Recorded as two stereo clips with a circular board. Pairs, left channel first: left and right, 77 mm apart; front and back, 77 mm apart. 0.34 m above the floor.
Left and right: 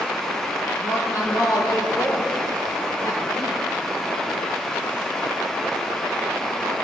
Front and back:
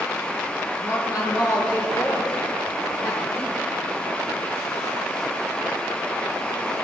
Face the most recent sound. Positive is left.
turn(degrees=-60)